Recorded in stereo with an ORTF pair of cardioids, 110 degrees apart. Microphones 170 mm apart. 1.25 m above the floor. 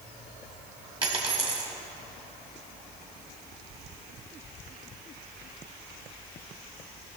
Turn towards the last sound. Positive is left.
turn(degrees=-30)